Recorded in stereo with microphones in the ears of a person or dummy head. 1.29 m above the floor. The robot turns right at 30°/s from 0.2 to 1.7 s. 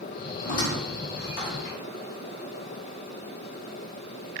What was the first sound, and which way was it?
A squeak, 40° left (ahead or behind).